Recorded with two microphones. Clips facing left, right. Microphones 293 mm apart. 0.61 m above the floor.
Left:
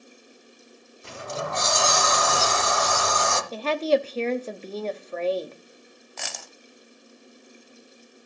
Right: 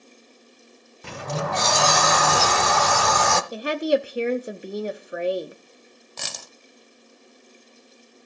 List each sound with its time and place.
1.0 s a sliding door: 70° right (ahead or behind), 0.7 m
3.5 s a woman speaking: 15° right (ahead or behind), 0.7 m
6.2 s a dropped coin: 45° right (ahead or behind), 0.5 m